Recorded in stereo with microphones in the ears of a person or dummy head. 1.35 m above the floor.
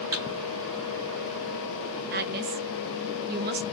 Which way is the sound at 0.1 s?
15° right (ahead or behind).